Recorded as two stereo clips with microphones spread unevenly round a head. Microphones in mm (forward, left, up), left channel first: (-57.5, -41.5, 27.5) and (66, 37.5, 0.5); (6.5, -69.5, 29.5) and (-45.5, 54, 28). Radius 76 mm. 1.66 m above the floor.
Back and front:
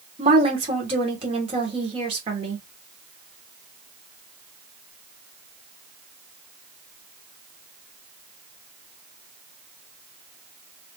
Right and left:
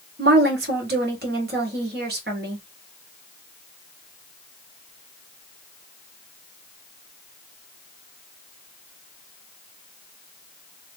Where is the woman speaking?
90° left, 1.3 m.